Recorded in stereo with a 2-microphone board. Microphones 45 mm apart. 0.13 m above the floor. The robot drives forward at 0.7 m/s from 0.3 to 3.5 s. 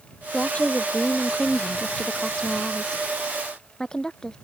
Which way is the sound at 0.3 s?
30° left (ahead or behind).